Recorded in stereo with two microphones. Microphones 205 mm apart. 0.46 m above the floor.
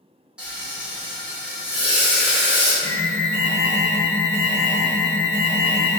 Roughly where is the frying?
Centre.